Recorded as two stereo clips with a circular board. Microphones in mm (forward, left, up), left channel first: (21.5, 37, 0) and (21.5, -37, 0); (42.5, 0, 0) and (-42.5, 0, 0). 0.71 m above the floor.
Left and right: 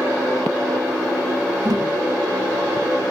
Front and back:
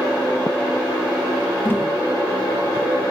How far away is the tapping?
About 3 m.